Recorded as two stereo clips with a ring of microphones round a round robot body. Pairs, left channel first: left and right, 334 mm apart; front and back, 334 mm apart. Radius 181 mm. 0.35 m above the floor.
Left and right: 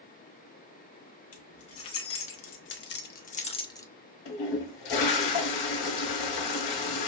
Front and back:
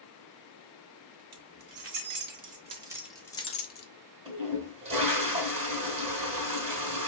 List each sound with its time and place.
1.3 s keys jangling: 140° left, 1.2 m; by 3.9 s 15° left, 0.7 m
4.2 s a toilet flushing: 110° left, 1.5 m